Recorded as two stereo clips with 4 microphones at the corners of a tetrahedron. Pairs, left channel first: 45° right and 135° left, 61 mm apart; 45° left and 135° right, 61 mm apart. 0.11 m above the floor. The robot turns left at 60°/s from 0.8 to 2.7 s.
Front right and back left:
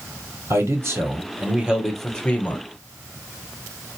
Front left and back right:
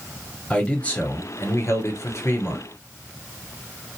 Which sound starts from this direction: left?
A man speaking, at 0.5 s.